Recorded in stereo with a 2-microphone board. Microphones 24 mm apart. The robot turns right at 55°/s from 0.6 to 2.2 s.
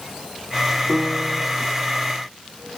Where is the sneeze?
I don't hear a sneeze.